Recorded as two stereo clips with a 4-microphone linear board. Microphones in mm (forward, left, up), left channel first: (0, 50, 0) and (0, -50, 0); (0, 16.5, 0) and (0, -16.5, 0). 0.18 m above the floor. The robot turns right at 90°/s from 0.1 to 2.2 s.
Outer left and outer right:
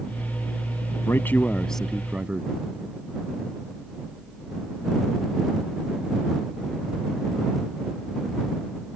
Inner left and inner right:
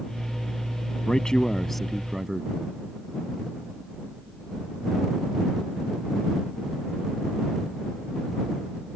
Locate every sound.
1.1 s a man speaking: 25° left (ahead or behind); by 2.5 s 10° right (ahead or behind)